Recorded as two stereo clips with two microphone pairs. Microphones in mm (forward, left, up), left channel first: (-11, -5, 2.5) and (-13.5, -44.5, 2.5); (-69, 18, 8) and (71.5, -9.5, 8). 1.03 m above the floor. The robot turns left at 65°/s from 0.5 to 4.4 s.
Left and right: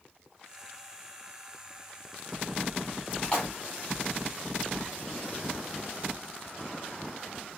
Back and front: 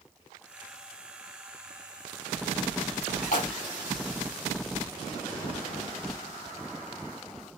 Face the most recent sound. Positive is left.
turn(degrees=85)